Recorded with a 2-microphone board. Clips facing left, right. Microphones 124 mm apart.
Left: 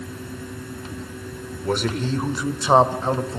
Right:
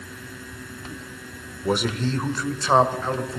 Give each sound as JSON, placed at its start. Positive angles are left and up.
{"t": 1.6, "sound": "a man speaking", "side_deg": -10, "distance_m": 1.4}